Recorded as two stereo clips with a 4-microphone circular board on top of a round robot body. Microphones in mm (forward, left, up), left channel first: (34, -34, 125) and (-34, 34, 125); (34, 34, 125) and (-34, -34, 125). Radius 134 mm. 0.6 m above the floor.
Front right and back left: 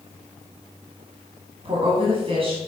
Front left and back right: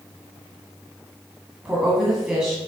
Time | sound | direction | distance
1.6 | a woman speaking | 150° left | 1.9 m